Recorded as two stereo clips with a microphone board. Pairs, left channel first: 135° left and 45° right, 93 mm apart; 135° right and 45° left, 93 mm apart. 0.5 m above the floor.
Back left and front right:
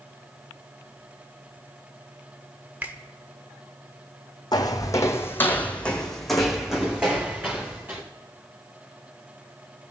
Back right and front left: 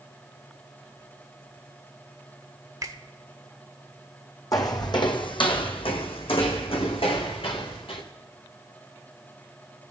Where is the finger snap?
20° left, 1.1 m.